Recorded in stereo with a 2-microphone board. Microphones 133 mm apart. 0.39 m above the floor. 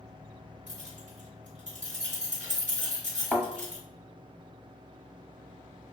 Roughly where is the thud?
Centre.